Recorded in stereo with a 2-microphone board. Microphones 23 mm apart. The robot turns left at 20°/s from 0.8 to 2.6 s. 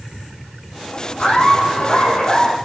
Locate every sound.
1.2 s laughter: 65° left (ahead or behind), 5 m; by 2.5 s 45° left (ahead or behind), 5 m